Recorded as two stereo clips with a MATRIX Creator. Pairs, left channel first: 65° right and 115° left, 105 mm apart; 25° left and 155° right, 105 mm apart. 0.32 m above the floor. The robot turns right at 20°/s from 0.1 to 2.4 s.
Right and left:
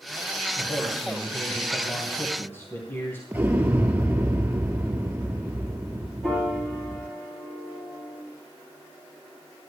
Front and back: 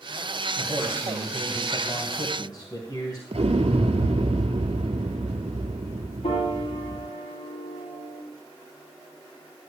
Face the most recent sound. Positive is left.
turn(degrees=20)